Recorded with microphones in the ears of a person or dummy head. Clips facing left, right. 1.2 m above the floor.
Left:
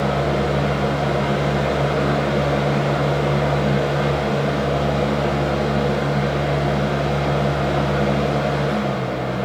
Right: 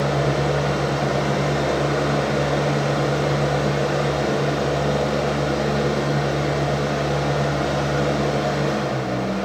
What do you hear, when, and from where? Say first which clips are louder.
0.0 s a fan: left 1 dB; 25° right (ahead or behind), 1.0 m